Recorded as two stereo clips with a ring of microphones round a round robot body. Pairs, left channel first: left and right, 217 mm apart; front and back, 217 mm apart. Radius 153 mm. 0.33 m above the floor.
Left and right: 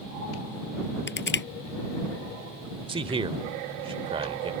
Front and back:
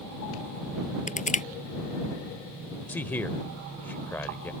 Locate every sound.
1.1 s crushing: 55° left
2.9 s a man speaking: 70° right